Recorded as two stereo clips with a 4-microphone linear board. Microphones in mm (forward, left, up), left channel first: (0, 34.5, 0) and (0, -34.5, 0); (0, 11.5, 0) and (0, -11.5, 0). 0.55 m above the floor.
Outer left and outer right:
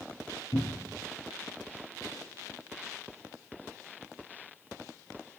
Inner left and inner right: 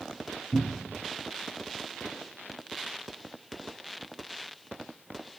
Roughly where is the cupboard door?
Left.